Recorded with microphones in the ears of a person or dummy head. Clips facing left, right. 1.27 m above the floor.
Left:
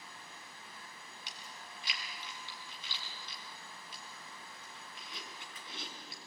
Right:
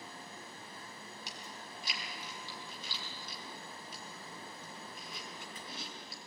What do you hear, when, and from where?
1.3 s chewing: 40° right (ahead or behind), 5 m